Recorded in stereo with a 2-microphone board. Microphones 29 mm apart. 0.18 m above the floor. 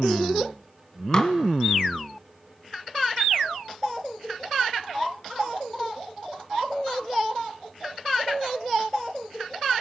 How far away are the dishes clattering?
About 0.9 m.